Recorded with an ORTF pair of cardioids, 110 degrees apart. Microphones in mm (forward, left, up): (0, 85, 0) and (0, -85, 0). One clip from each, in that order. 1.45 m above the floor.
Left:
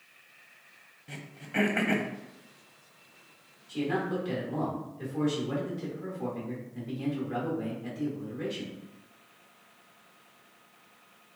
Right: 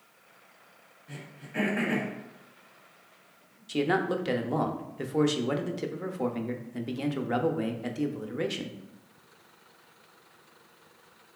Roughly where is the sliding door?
I don't hear a sliding door.